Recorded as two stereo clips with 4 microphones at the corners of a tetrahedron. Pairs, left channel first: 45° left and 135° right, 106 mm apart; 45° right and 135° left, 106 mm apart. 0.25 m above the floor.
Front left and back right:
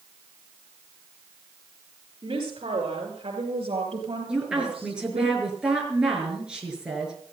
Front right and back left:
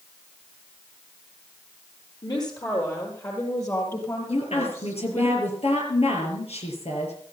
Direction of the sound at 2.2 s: 95° right.